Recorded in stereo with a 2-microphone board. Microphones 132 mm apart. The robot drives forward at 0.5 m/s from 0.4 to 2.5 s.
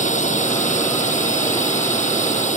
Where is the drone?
65° left (ahead or behind).